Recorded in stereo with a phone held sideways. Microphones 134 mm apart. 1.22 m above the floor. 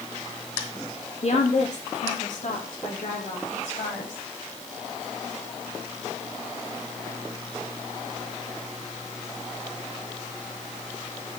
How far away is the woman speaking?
About 1.9 m.